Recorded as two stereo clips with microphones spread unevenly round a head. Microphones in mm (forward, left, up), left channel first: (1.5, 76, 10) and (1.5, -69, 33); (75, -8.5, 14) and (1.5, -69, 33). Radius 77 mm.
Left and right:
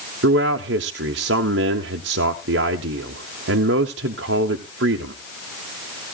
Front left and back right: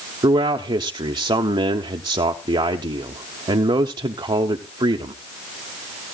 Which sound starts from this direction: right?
A man speaking, at 0.2 s.